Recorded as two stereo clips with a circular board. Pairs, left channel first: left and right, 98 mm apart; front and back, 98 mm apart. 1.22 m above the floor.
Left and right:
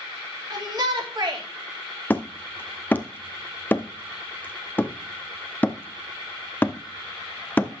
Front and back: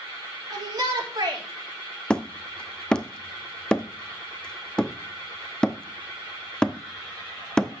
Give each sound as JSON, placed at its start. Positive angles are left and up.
{"t": 0.5, "sound": "a shout", "azimuth_deg": -135, "distance_m": 3.0}
{"t": 2.1, "sound": "hammering", "azimuth_deg": 65, "distance_m": 0.6}